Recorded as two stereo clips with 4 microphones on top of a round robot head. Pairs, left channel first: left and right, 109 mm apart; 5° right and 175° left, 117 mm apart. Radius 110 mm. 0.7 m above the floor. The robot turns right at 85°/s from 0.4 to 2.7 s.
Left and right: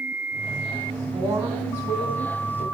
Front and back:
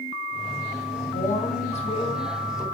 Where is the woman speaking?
35° right, 2.5 m; by 2.6 s 95° left, 2.5 m.